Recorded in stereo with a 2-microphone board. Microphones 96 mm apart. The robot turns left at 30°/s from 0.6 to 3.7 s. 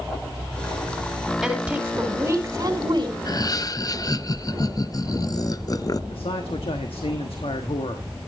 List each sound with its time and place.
1.4 s a woman speaking: straight ahead, 3 m; by 3.1 s 55° right, 3 m
3.2 s laughter: 40° left (ahead or behind), 0.6 m
6.1 s a man speaking: 70° left (ahead or behind), 1.2 m